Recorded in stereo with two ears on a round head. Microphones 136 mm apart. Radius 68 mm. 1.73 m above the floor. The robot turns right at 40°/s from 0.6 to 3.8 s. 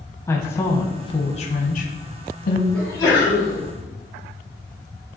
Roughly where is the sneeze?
Ahead.